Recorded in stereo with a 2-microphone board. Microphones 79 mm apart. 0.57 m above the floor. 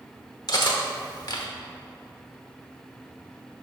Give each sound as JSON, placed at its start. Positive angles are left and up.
{"t": 0.5, "sound": "cutlery clinking", "side_deg": 55, "distance_m": 0.9}